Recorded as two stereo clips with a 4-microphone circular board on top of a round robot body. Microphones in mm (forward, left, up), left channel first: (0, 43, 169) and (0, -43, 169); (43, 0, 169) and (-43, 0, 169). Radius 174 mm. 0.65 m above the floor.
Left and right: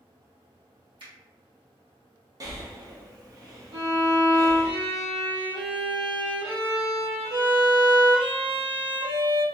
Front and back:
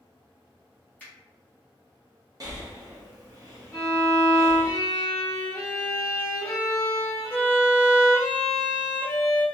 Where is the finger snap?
75° right, 1.3 m.